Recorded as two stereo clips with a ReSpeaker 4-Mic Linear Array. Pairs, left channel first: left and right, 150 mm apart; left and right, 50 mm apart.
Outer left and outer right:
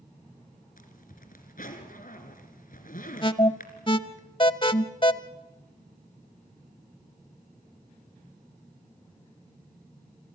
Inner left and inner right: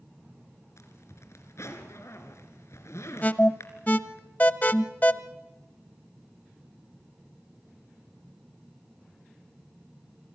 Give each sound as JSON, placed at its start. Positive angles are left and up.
{"t": 0.8, "sound": "a zipper", "side_deg": 65, "distance_m": 2.5}
{"t": 3.2, "sound": "an alarm", "side_deg": 35, "distance_m": 0.8}